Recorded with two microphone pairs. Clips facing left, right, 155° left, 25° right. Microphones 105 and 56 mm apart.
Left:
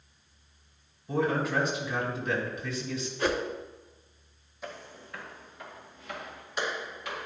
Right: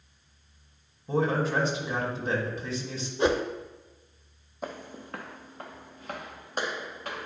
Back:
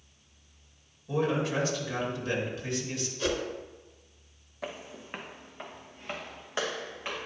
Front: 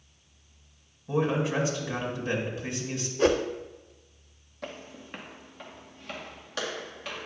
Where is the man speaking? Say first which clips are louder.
Right 2 dB, front 2 dB; 75° right, 1.7 m.